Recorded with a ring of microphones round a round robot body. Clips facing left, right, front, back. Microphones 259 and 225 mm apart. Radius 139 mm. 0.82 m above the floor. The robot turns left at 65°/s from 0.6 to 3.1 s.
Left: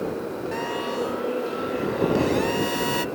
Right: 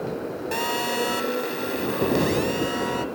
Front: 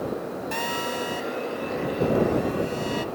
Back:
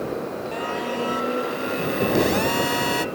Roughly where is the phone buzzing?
Ahead right.